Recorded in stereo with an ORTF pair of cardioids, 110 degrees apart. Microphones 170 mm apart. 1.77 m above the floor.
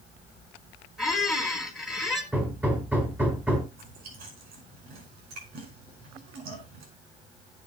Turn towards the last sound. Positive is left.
turn(degrees=-65)